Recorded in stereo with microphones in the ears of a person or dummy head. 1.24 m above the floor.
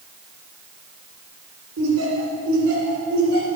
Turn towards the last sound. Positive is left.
turn(degrees=-70)  # may be behind; listen again after turning